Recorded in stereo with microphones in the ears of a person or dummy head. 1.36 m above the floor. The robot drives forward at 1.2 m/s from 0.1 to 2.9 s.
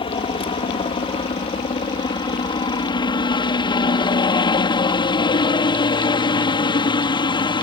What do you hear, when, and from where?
0.0 s a helicopter: 25° left (ahead or behind)